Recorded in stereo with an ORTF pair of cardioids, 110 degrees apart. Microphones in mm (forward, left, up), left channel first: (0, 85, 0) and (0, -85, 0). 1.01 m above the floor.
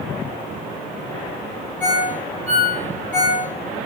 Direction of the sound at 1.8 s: 5° left.